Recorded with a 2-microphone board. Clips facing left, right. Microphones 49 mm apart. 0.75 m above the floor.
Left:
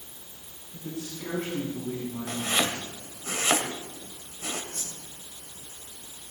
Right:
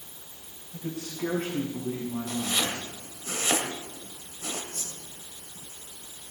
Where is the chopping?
40° left (ahead or behind), 2 m.